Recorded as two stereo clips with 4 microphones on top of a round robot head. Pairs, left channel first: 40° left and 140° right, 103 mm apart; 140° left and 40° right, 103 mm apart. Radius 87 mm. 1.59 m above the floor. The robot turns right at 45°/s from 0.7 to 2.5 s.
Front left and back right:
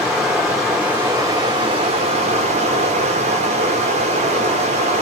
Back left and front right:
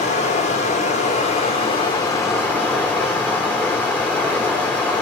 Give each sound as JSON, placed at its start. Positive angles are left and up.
{"t": 0.0, "sound": "running water", "azimuth_deg": 135, "distance_m": 1.5}